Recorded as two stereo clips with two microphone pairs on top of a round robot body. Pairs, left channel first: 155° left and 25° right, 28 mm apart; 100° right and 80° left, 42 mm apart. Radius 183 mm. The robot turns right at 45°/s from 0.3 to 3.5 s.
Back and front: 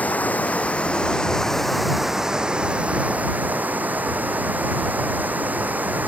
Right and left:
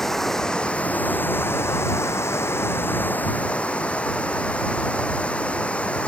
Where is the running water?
175° left; by 6.1 s 40° right.